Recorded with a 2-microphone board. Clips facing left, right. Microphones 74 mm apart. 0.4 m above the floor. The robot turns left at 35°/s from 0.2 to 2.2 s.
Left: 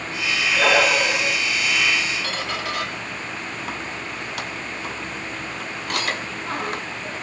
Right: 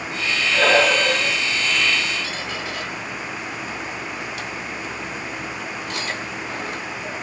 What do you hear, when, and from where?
0.5 s breathing: 170° right, 0.7 m; by 1.4 s 160° left, 0.7 m
2.2 s a squeak: 80° left, 0.6 m